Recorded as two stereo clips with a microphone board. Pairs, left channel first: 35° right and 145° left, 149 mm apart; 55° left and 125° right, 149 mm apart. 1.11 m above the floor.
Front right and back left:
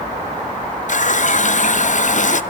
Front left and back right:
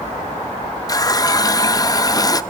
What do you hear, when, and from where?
0.9 s a running tap: 10° right, 0.6 m